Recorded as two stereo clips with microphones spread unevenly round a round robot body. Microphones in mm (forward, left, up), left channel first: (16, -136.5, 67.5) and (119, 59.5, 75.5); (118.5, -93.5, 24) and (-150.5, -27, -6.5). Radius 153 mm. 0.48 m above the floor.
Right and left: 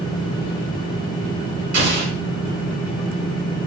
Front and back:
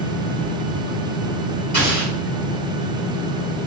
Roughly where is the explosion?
Ahead left.